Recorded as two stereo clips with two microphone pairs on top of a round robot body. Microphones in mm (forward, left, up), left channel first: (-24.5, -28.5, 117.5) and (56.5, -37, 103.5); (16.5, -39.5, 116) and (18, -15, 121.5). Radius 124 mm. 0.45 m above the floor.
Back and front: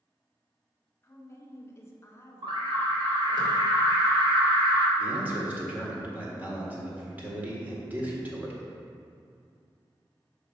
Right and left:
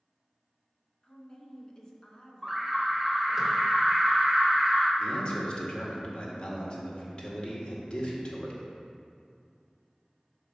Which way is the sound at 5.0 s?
65° right.